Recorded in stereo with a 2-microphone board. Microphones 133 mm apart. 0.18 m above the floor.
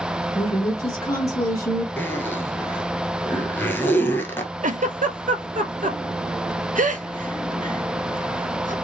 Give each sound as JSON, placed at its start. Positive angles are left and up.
{"t": 0.3, "sound": "a woman speaking", "side_deg": 25, "distance_m": 2.5}
{"t": 2.0, "sound": "a zipper", "side_deg": 15, "distance_m": 0.8}
{"t": 4.6, "sound": "a giggle", "side_deg": -75, "distance_m": 0.5}